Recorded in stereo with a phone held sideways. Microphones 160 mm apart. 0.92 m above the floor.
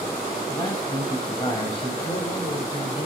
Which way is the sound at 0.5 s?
25° left (ahead or behind).